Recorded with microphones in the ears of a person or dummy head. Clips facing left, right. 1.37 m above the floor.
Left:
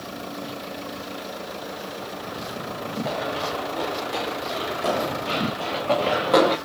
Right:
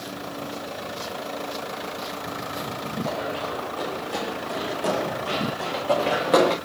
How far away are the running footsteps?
About 5.5 m.